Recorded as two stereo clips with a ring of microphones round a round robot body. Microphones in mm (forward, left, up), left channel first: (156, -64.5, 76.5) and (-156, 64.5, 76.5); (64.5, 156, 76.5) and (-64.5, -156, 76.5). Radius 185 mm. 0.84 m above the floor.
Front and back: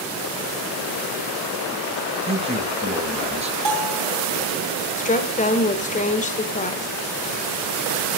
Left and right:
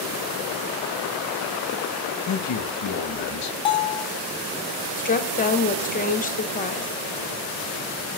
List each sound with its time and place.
2.3 s a man speaking: 90° left, 0.9 m
3.6 s a bell: 145° left, 2.5 m
5.0 s a woman speaking: 25° left, 0.9 m